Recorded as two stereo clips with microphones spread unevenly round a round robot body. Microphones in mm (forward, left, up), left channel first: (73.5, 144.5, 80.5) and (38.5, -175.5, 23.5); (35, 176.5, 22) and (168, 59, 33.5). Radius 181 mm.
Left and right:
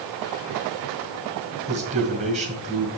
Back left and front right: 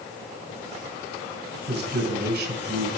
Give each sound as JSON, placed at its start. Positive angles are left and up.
{"t": 1.7, "sound": "a man speaking", "azimuth_deg": -35, "distance_m": 2.0}